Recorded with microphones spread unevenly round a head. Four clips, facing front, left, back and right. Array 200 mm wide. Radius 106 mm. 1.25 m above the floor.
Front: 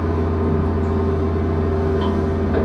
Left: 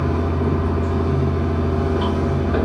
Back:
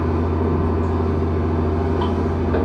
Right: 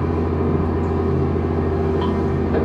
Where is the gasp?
I don't hear a gasp.